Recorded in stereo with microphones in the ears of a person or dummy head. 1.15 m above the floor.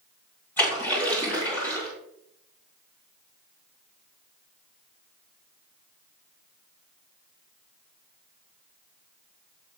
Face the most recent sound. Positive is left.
turn(degrees=10)  # may be behind; listen again after turning